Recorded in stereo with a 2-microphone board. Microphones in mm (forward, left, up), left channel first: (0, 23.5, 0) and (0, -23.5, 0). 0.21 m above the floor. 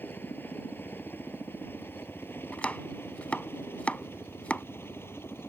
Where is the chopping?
30° left (ahead or behind).